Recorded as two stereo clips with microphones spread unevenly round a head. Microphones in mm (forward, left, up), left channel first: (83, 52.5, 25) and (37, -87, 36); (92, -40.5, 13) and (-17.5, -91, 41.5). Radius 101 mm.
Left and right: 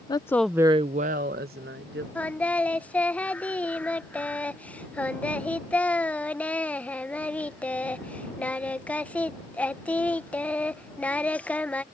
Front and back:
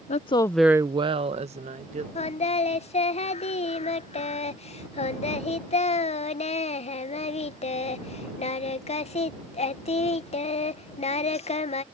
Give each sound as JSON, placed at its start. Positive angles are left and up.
{"t": 0.1, "sound": "a woman speaking", "azimuth_deg": 15}
{"t": 2.1, "sound": "singing", "azimuth_deg": -10}